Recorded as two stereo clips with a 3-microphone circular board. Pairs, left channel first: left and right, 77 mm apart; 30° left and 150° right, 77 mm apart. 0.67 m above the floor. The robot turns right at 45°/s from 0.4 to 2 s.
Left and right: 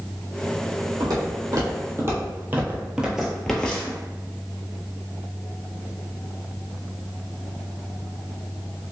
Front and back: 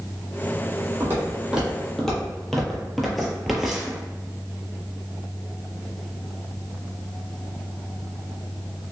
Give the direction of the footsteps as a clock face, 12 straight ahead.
3 o'clock.